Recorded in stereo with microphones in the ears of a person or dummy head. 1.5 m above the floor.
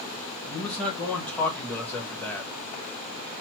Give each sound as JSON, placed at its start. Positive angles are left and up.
{"t": 0.5, "sound": "a man speaking", "side_deg": 10, "distance_m": 1.3}